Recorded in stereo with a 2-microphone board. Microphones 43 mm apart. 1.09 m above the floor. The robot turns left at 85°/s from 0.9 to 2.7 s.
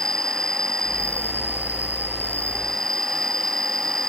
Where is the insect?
165° left; by 4.1 s 10° left.